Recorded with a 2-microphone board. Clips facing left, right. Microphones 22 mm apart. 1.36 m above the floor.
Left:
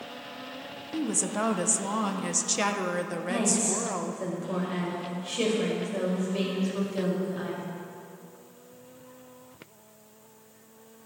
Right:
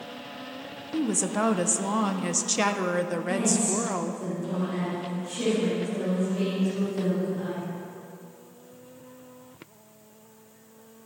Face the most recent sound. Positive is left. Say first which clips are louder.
# even
turn(degrees=65)  # may be behind; listen again after turning